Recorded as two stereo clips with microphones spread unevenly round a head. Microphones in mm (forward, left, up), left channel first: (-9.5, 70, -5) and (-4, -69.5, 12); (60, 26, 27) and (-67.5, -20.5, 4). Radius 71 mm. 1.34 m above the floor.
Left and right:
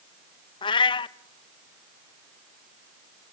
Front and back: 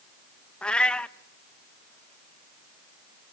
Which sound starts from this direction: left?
A cat meowing, at 0.6 s.